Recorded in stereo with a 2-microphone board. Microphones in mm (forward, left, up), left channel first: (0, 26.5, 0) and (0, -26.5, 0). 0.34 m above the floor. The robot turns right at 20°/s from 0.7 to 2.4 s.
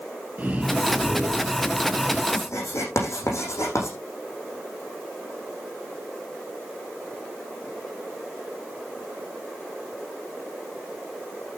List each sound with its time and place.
0.4 s breathing: 30° right, 9.5 m; by 2.2 s straight ahead, 9.5 m
2.3 s writing: 60° left (ahead or behind), 8 m